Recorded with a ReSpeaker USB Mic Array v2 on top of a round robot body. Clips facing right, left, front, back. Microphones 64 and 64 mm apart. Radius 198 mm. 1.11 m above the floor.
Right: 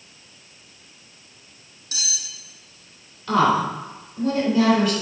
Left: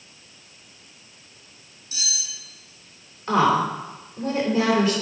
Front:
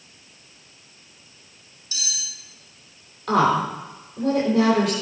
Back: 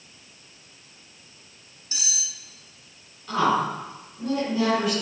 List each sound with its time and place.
1.9 s cutlery clinking: 115° right, 1.8 m
3.3 s a woman speaking: 20° left, 4 m